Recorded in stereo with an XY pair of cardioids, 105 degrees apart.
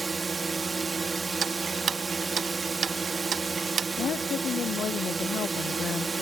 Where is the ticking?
50° right.